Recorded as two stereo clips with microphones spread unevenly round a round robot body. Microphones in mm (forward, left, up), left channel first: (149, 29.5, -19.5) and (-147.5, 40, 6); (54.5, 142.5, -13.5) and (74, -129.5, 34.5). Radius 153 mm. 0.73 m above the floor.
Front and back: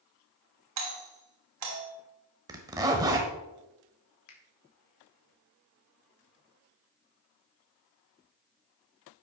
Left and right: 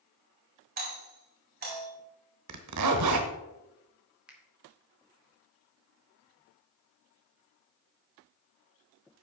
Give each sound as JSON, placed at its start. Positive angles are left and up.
{"t": 0.8, "sound": "a doorbell", "azimuth_deg": -150, "distance_m": 2.5}
{"t": 2.5, "sound": "a zipper", "azimuth_deg": -105, "distance_m": 1.0}
{"t": 4.3, "sound": "a finger snap", "azimuth_deg": 5, "distance_m": 2.0}